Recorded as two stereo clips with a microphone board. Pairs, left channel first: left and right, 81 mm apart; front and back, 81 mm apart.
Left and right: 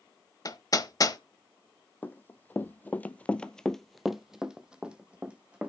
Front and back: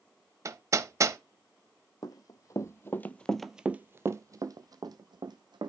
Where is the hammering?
130° left, 0.8 m.